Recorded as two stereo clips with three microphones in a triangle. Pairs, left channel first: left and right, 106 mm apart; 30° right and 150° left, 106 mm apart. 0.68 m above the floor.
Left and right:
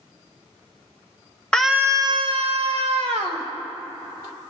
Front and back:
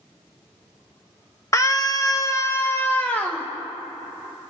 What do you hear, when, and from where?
1.5 s a scream: 10° left, 0.7 m; by 3.5 s 105° right, 2.0 m